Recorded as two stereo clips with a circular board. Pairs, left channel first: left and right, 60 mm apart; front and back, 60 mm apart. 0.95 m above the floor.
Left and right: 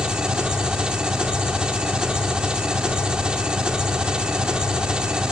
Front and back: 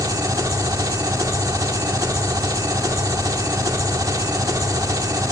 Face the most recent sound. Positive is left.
turn(degrees=-165)